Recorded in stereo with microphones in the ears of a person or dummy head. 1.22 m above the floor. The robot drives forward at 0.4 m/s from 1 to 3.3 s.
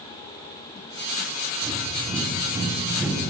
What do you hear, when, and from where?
1.6 s breathing: 25° right (ahead or behind), 1.4 m; by 3.3 s 15° right (ahead or behind), 2 m